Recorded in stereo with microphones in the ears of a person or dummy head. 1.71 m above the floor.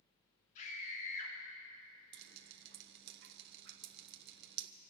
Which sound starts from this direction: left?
A scream, at 0.6 s.